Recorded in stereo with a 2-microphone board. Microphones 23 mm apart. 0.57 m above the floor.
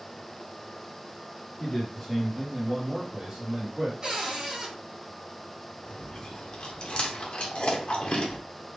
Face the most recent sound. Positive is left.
turn(degrees=50)  # may be behind; listen again after turning